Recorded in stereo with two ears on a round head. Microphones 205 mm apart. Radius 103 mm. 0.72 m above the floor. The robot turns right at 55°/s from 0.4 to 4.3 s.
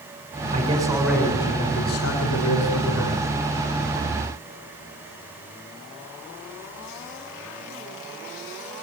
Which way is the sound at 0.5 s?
30° right.